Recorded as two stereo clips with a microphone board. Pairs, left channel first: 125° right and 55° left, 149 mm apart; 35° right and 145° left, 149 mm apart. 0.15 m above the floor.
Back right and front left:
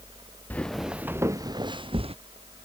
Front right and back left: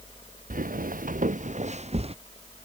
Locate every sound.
0.5 s footsteps: 155° left; by 2.1 s 100° left